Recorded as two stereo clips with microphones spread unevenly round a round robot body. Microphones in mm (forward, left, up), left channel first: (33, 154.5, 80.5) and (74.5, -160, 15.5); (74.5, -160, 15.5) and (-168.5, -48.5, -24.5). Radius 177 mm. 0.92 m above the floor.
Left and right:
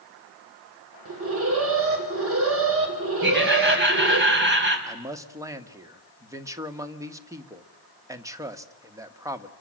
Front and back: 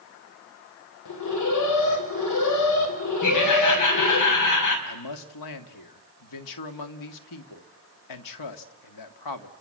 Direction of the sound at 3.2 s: 25° right.